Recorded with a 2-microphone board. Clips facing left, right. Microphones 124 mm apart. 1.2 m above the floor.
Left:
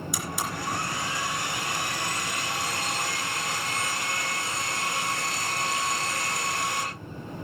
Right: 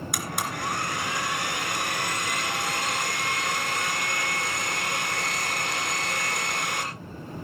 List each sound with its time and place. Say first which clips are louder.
0.1 s a blender: right 2 dB; 65° right (ahead or behind), 2.5 m